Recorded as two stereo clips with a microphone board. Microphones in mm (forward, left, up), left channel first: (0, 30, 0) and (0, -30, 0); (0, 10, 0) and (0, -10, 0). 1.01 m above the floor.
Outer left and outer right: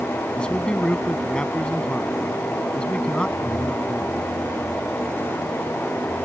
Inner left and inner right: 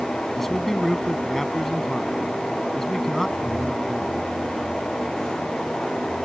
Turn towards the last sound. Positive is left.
turn(degrees=15)  # may be behind; listen again after turning